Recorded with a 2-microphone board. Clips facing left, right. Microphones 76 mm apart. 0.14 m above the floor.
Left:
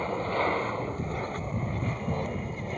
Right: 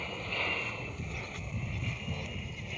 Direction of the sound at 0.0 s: 40° left (ahead or behind).